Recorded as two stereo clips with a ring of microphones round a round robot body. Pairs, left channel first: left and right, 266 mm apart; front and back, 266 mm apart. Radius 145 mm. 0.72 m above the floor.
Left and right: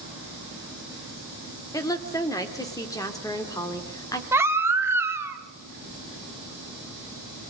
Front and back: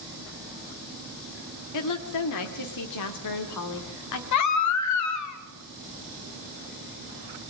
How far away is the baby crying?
About 1.5 m.